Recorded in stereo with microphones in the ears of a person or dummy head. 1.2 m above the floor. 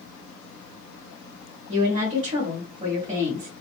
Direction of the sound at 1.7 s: 40° right (ahead or behind).